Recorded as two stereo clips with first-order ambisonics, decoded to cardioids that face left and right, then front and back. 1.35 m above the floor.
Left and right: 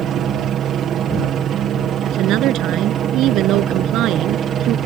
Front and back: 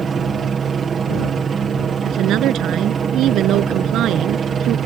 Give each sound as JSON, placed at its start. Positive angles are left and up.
{"t": 0.0, "sound": "a helicopter", "azimuth_deg": -120}
{"t": 2.0, "sound": "a woman speaking", "azimuth_deg": -130}